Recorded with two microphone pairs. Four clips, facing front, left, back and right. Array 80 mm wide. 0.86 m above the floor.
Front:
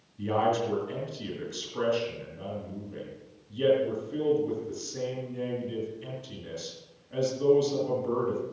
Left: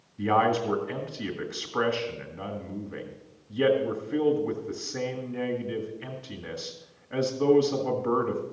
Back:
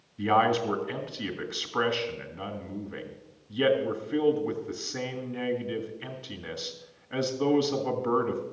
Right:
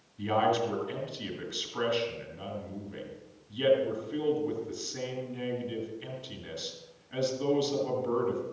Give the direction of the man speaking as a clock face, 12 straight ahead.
8 o'clock.